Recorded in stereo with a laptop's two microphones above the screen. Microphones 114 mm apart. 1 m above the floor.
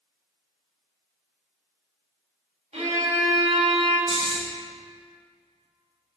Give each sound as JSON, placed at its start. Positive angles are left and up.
{"t": 2.7, "sound": "a violin", "side_deg": -75, "distance_m": 1.9}
{"t": 4.1, "sound": "snoring", "side_deg": -50, "distance_m": 0.8}